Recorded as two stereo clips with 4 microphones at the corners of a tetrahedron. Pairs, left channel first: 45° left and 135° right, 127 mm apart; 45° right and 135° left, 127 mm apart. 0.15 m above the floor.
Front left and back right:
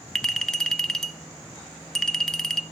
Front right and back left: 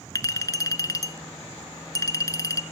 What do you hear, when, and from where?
0.1 s a clink: 35° right, 0.7 m